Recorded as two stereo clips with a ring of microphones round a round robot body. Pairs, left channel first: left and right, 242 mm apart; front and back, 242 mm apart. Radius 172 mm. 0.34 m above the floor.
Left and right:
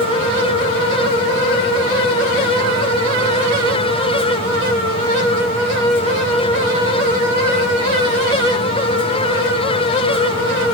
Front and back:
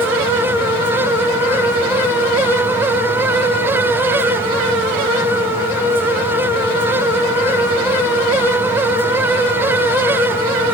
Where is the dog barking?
I don't hear a dog barking.